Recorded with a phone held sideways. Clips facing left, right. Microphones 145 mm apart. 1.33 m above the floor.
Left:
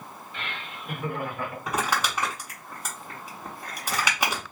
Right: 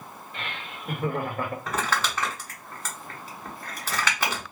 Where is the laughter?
55° right (ahead or behind), 2.0 m; by 1.6 s 50° right (ahead or behind), 1.2 m.